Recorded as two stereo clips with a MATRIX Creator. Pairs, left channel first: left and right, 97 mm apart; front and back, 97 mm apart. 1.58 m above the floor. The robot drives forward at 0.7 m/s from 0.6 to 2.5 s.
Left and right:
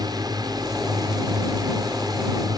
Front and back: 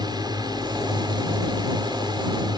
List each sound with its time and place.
0.0 s a drone: 135° right